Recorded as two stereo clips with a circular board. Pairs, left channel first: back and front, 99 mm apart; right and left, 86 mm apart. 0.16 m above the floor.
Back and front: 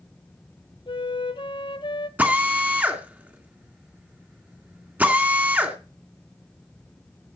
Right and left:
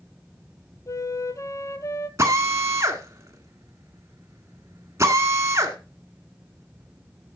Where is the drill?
65° left, 1.4 m.